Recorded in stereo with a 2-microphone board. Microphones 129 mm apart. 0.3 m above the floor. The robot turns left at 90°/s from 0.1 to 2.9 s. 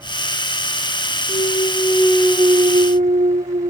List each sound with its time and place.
1.3 s a clunk: 75° left; by 3.7 s 70° right